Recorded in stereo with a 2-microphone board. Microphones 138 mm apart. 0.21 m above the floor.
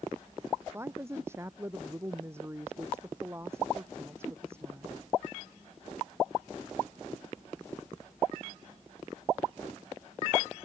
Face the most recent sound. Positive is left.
turn(degrees=-20)  # may be behind; listen again after turning